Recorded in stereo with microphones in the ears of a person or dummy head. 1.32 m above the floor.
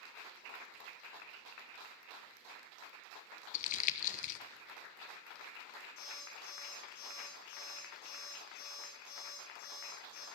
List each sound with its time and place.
3.5 s crumpling: 40° left (ahead or behind), 1.0 m
6.0 s an alarm clock: 50° left (ahead or behind), 7 m